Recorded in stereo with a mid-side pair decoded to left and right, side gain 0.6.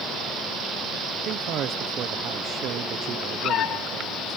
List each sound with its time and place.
1.2 s a man speaking: 55° right